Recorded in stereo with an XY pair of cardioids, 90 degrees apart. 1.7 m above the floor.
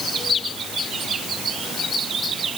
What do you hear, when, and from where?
Only background noise.